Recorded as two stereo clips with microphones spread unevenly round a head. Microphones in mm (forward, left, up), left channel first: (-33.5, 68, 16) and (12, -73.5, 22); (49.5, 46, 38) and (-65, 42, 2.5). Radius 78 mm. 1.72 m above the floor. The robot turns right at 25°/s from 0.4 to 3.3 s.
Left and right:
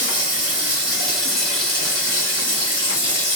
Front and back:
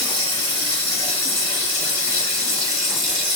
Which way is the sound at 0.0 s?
Straight ahead.